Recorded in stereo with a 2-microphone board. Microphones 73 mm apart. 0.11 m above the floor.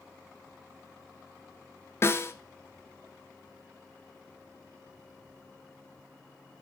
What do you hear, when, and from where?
2.0 s a snare drum: 35° left (ahead or behind), 1.2 m